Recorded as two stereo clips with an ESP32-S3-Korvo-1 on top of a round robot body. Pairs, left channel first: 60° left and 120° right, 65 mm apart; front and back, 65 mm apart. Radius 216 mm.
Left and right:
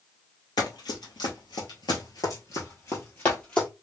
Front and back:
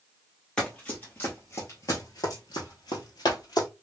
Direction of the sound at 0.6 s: 75° left.